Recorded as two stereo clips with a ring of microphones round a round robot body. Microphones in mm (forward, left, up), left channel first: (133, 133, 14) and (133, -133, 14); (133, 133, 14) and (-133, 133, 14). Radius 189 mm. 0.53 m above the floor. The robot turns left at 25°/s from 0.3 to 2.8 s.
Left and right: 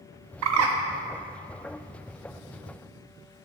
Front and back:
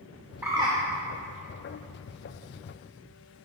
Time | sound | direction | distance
0.4 | a bird | 95° right | 0.5 m